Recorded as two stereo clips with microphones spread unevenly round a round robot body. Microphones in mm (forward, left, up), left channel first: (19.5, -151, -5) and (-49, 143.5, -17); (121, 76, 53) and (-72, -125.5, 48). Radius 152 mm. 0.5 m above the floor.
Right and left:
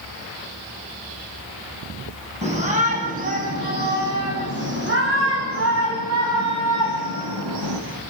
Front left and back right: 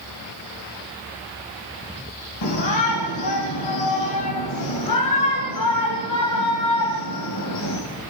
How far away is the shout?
About 4.5 m.